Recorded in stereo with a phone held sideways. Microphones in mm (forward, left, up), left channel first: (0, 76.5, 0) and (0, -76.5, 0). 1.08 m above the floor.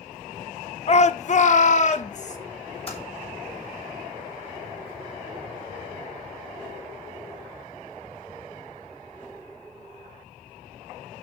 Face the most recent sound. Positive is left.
turn(degrees=40)  # may be behind; listen again after turning